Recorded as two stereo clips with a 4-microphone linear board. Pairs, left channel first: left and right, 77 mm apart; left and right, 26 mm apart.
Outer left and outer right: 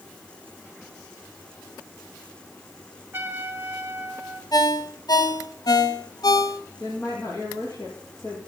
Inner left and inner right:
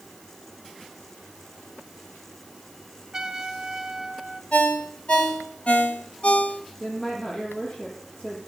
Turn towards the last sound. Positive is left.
turn(degrees=40)  # may be behind; listen again after turning